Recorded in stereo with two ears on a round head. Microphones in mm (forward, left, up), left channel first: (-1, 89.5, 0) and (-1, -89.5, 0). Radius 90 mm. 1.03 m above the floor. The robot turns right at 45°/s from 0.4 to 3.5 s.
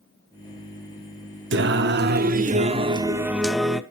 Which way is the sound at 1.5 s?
90° right.